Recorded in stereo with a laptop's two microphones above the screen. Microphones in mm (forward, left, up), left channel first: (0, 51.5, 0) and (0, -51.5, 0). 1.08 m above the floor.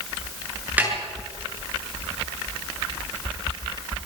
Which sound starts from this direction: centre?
A snare drum, at 0.8 s.